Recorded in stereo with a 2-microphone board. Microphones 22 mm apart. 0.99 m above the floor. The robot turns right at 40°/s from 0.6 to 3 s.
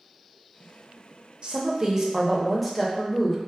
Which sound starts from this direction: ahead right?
A woman speaking, at 1.4 s.